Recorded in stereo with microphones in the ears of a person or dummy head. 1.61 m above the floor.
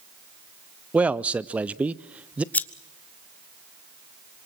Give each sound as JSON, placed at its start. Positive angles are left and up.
{"t": 0.9, "sound": "a man speaking", "side_deg": -5, "distance_m": 0.6}
{"t": 2.5, "sound": "scissors", "side_deg": 10, "distance_m": 1.0}